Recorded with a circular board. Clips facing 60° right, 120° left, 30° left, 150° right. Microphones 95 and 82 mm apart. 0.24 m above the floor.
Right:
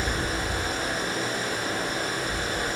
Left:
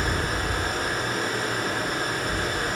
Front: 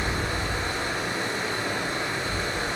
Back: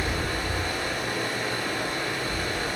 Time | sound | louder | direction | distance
0.0 | running water | left 2 dB, even | 90° left | 2.5 m